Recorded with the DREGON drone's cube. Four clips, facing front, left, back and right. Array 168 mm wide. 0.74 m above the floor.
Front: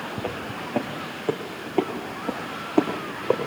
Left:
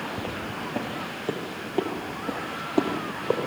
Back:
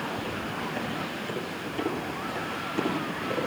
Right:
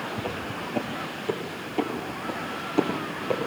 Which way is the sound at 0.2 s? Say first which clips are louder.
Even, front 1 dB; 5° left.